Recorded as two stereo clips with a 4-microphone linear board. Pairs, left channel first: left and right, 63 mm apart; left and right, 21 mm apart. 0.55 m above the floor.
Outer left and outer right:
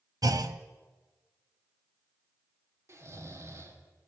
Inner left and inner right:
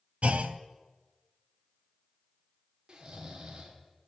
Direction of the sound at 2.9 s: 50° right (ahead or behind).